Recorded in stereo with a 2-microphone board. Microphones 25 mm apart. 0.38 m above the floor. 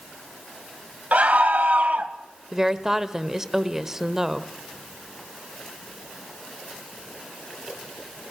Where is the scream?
65° right (ahead or behind), 1.9 m.